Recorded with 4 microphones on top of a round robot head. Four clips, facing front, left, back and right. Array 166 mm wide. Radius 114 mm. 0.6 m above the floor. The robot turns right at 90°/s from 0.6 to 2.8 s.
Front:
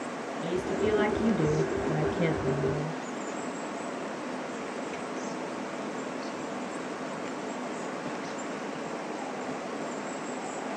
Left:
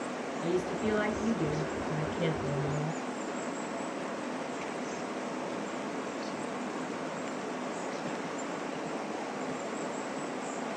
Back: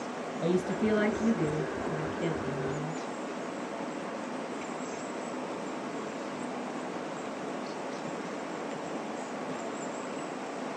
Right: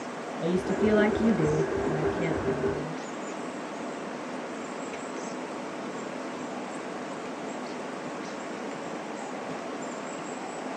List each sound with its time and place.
0.4 s a woman speaking: 130° right, 3 m; by 2.9 s 65° left, 3 m